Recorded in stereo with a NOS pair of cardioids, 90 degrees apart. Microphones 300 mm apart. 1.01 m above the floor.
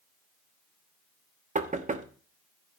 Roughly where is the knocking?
Ahead right.